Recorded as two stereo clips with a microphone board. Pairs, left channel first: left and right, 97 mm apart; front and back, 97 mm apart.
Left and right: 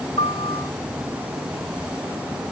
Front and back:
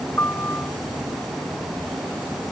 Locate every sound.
0.2 s a piano: 70° left